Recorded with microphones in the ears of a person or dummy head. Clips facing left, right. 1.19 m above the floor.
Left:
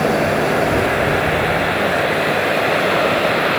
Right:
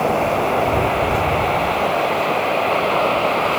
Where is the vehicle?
20° left (ahead or behind).